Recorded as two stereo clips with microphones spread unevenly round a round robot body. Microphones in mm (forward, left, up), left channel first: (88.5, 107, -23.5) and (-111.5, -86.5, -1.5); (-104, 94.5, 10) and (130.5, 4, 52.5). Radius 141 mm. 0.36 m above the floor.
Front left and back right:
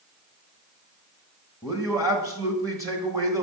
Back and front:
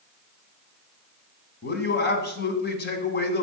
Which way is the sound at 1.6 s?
145° left.